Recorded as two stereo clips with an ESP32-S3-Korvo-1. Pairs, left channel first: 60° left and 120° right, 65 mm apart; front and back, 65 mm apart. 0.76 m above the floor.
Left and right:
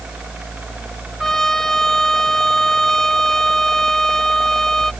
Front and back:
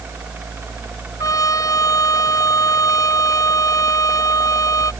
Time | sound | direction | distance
1.2 | a trumpet | 25° right | ?